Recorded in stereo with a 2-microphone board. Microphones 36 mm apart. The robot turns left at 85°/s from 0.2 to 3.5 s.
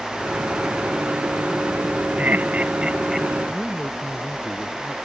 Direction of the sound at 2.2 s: 50° right (ahead or behind).